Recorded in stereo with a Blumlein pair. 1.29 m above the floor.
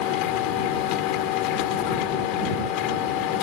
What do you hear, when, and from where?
0.0 s a machine running: 40° left